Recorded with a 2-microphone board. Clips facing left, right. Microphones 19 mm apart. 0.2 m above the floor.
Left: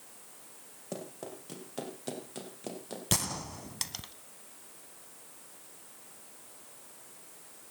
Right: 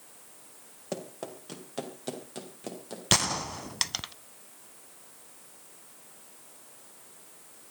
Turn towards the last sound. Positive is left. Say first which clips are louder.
# right 7 dB
turn(degrees=-40)  # may be behind; listen again after turning